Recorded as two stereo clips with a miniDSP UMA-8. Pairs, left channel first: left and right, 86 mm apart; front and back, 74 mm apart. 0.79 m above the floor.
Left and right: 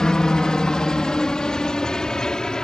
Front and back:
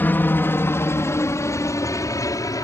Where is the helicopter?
20° left; by 2.6 s 10° left.